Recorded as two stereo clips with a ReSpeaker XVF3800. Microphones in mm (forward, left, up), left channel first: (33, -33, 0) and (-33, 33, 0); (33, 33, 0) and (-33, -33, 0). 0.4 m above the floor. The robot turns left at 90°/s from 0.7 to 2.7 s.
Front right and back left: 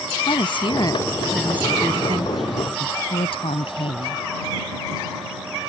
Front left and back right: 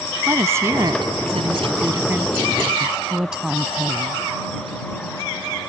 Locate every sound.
0.3 s a woman speaking: 75° right; by 2.4 s 135° left
2.8 s a woman speaking: 50° right